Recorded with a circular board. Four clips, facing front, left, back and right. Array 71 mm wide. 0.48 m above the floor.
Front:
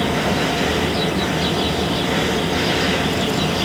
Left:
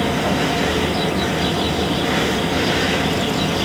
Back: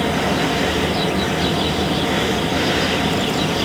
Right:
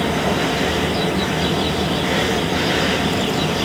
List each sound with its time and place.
Only background noise.